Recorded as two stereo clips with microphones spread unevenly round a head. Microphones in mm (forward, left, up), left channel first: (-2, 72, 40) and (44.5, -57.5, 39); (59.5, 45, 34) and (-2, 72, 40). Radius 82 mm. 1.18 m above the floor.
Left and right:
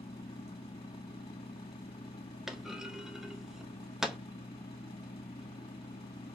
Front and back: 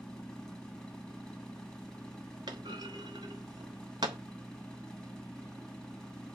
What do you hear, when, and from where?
0.0 s a machine running: 60° left, 2 m
2.5 s a clunk: 160° right, 0.6 m